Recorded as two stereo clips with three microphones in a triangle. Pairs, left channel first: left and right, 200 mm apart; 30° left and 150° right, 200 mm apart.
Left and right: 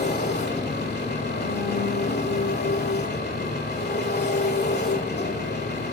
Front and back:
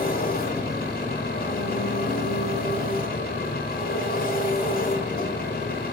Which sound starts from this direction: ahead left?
An engine running, at 0.0 s.